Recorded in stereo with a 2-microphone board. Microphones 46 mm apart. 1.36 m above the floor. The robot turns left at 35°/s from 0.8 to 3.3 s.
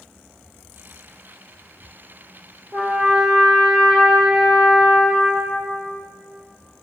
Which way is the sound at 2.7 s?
50° right (ahead or behind).